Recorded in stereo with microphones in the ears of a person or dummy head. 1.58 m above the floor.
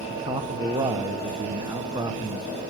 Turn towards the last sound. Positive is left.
turn(degrees=-20)  # may be behind; listen again after turning